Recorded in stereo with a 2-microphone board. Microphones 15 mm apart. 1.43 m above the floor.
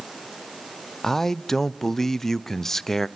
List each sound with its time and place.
1.0 s a man speaking: 30° left (ahead or behind), 0.5 m